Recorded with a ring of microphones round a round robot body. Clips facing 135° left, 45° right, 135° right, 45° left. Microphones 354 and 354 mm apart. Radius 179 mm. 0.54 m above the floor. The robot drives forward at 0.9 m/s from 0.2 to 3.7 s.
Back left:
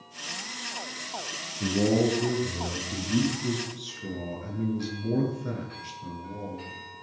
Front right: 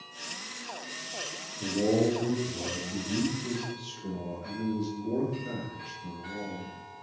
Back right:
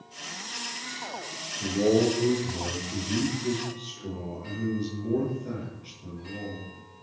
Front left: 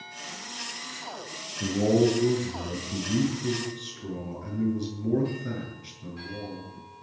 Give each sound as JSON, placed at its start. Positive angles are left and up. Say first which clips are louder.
{"t": 1.6, "sound": "a man speaking", "louder": "back left 2 dB, even", "azimuth_deg": 85, "distance_m": 8.5}